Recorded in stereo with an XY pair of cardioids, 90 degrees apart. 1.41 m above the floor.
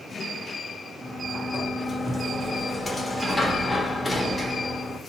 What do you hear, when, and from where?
1.0 s a sliding door: 25° left, 1.0 m